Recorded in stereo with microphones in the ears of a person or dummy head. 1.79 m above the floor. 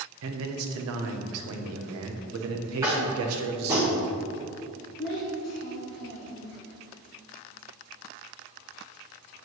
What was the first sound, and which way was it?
A man speaking, 75° right (ahead or behind).